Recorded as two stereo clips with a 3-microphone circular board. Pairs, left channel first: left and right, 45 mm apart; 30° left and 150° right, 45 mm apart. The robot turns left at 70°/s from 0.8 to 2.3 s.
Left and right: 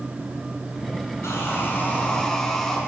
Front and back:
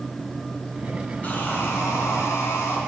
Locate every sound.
1.2 s sawing: 85° left, 2.5 m; by 2.8 s 10° left, 2.5 m